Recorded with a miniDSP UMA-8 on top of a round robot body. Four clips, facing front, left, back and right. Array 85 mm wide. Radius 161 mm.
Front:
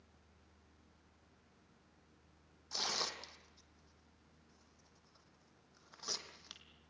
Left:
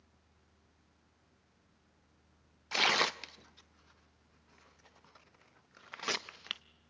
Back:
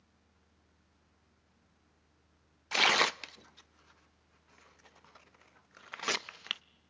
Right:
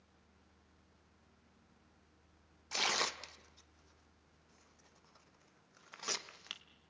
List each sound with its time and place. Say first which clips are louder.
2.7 s tearing paper: left 6 dB, back 14 dB; 160° left, 0.7 m